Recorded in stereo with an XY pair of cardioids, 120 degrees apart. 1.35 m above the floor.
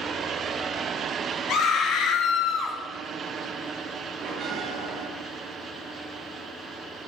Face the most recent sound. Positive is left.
turn(degrees=-65)